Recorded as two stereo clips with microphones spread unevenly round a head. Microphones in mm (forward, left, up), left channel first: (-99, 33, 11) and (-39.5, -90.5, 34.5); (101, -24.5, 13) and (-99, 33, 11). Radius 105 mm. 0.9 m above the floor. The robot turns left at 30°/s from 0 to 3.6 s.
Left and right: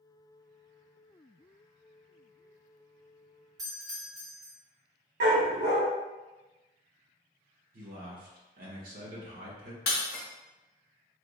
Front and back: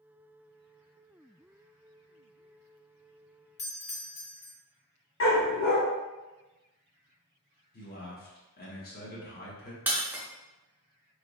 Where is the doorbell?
5° right, 0.8 m.